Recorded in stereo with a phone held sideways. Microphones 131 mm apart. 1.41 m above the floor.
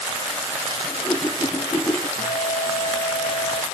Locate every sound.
0.8 s a whoosh: 25° left (ahead or behind)
2.2 s a guitar: 70° left (ahead or behind)